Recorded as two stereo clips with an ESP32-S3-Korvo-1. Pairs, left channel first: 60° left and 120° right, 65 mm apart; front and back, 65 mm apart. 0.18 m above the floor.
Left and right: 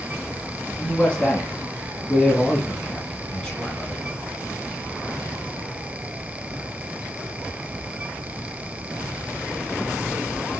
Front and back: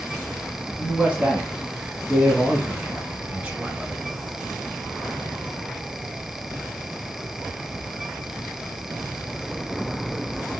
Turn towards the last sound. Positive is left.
turn(degrees=125)